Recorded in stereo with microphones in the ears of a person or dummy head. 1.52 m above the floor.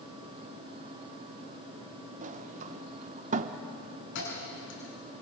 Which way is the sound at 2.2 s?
50° right (ahead or behind).